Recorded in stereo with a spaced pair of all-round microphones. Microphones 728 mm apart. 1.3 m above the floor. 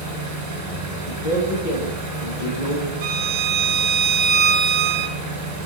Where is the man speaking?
80° left, 1.3 m.